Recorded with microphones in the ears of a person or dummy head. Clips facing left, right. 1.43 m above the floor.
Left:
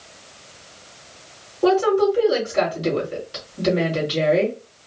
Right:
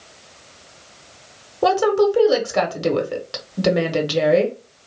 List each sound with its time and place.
1.6 s a woman speaking: 75° right (ahead or behind), 1.3 m